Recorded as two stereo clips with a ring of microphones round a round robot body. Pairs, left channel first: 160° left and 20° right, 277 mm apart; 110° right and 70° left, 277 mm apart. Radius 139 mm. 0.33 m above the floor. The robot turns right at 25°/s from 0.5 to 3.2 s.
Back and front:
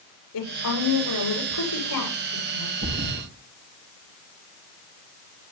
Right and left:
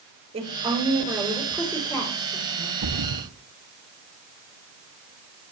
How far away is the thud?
About 3.5 m.